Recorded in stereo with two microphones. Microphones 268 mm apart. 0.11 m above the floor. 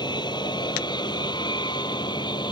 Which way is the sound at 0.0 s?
15° left (ahead or behind).